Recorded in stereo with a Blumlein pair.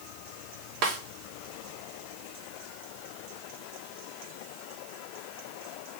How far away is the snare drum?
About 1.2 m.